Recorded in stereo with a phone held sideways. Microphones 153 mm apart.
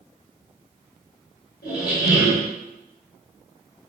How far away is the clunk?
No clunk in this recording.